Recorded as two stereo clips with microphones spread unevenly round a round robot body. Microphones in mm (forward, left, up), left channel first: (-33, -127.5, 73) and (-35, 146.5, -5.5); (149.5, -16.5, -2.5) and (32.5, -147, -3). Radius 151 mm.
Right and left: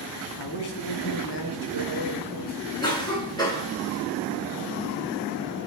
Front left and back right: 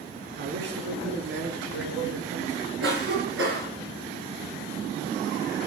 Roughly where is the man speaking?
Behind right.